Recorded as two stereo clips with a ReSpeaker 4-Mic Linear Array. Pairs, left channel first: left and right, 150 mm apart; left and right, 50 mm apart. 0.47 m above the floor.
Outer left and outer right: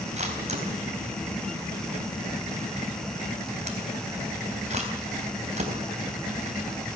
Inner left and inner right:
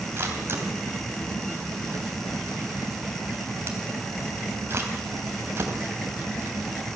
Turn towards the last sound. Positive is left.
turn(degrees=-45)  # may be behind; listen again after turning